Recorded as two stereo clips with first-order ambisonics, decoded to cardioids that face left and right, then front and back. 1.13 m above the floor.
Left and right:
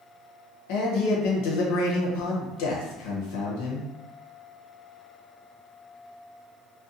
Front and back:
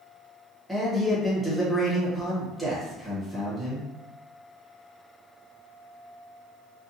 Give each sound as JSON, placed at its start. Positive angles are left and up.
{"t": 0.7, "sound": "a man speaking", "azimuth_deg": 95, "distance_m": 0.8}